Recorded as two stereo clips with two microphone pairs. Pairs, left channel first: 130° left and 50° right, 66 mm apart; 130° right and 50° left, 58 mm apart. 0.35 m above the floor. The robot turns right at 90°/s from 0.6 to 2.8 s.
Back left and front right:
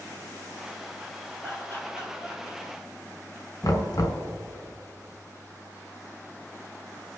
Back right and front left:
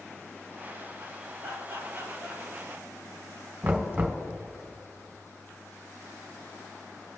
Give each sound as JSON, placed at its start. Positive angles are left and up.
{"t": 1.4, "sound": "laughter", "azimuth_deg": 50, "distance_m": 6.0}
{"t": 3.6, "sound": "knocking", "azimuth_deg": 115, "distance_m": 1.7}